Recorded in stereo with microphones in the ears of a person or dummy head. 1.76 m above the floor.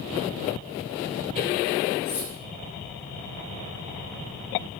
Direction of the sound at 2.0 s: 55° left (ahead or behind).